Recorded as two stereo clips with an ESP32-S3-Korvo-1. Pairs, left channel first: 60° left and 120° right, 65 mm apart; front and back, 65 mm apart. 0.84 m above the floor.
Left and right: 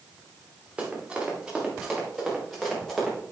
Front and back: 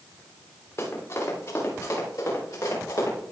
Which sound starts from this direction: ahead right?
Running footsteps, at 0.8 s.